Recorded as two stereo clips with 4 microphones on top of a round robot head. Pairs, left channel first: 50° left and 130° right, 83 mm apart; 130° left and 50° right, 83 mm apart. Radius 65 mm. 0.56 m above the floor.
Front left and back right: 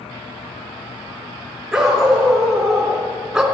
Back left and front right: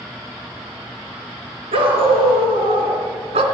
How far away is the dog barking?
About 3.5 m.